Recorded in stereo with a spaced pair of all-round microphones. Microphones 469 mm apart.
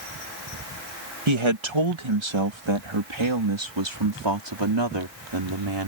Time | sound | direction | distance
1.3 | a man speaking | 80° right | ?